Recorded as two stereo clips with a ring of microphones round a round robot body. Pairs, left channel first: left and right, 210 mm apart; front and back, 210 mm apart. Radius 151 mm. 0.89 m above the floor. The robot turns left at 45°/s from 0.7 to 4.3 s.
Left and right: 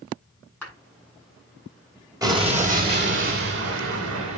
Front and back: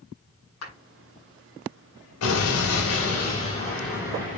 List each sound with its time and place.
0.6 s a clap: 10° left, 6.5 m; by 0.8 s 5° left, 6.5 m
2.2 s an explosion: 15° right, 2.5 m; by 4.4 s 110° right, 2.5 m